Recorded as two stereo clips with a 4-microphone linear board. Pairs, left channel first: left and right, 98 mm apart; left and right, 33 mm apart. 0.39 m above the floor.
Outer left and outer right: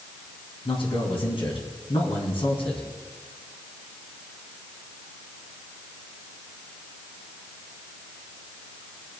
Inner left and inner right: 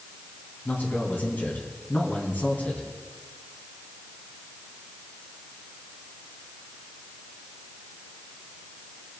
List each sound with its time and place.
0.7 s a man speaking: 65° left (ahead or behind), 3.5 m